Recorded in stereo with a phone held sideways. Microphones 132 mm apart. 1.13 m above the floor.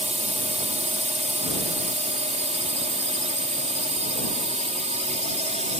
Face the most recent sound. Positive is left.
turn(degrees=-60)  # may be behind; listen again after turning